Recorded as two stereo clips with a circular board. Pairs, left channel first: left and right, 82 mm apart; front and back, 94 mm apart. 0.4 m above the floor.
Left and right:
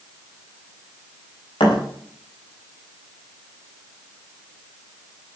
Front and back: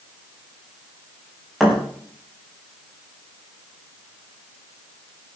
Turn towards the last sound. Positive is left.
turn(degrees=90)